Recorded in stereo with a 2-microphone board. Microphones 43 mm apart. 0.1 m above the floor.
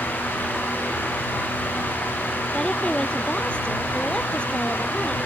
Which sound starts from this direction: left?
A woman speaking, at 2.5 s.